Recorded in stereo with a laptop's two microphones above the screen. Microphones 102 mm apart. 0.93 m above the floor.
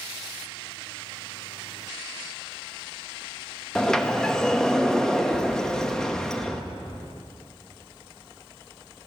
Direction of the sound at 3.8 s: 5° left (ahead or behind).